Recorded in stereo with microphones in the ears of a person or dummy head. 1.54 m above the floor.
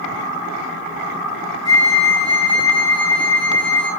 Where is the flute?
25° right (ahead or behind), 3 m.